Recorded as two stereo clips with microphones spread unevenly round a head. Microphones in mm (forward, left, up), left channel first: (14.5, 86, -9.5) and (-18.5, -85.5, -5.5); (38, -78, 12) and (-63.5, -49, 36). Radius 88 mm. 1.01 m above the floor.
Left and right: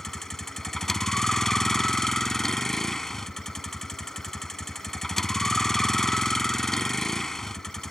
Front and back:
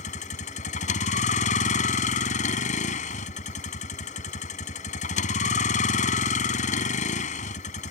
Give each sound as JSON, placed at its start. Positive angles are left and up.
{"t": 0.0, "sound": "a vehicle", "azimuth_deg": -10}